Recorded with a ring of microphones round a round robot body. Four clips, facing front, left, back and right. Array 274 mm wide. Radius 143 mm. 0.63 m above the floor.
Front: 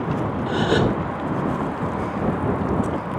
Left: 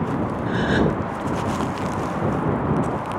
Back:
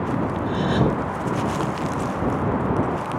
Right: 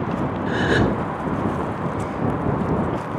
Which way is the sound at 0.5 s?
30° right.